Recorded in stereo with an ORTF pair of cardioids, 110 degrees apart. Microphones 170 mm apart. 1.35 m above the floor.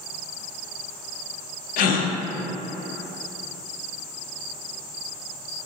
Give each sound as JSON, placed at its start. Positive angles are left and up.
{"t": 1.8, "sound": "a gasp", "azimuth_deg": 60, "distance_m": 0.5}